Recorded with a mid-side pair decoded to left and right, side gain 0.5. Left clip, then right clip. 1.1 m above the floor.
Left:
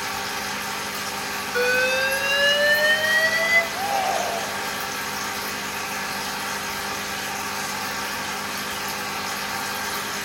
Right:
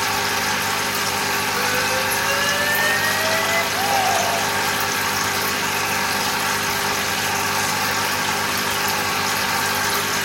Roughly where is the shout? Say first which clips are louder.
Right 4 dB; ahead.